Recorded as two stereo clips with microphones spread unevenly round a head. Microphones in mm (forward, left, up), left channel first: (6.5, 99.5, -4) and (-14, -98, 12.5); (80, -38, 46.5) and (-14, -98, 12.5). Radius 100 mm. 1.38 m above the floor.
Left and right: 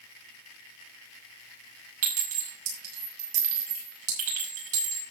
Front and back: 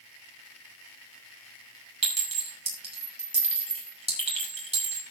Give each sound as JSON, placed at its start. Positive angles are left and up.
{"t": 2.0, "sound": "a clink", "azimuth_deg": -110, "distance_m": 6.0}